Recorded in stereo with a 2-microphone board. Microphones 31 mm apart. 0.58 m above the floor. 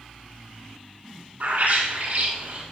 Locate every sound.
1.4 s a bird: 65° right (ahead or behind), 2.5 m